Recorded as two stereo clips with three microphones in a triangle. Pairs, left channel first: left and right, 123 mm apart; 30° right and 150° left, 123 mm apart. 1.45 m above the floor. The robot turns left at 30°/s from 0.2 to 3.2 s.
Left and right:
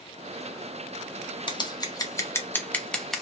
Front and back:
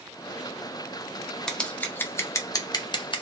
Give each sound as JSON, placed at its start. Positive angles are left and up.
{"t": 1.5, "sound": "scissors", "azimuth_deg": 55, "distance_m": 1.0}